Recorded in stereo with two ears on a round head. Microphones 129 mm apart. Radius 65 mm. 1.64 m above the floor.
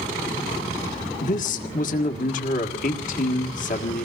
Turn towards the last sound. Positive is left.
turn(degrees=55)  # may be behind; listen again after turning